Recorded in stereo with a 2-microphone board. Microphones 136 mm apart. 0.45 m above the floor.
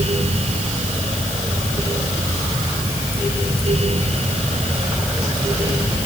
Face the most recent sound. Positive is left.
No sound to turn to.